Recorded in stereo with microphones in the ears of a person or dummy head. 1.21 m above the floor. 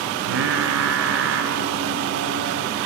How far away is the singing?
About 4 m.